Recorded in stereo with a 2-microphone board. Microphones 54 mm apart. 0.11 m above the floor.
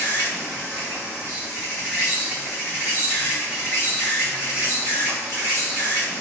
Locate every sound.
0.0 s an insect: 45° right (ahead or behind), 2 m